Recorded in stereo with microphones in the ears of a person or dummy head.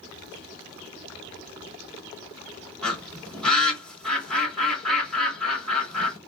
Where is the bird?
5° left (ahead or behind), 2.5 m.